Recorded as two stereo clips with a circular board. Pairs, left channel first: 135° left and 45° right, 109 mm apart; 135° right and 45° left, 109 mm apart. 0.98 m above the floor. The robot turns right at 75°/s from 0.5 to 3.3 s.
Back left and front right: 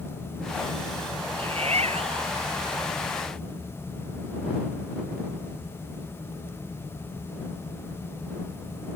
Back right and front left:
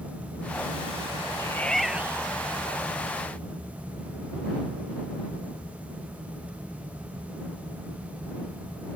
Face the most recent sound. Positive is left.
turn(degrees=65)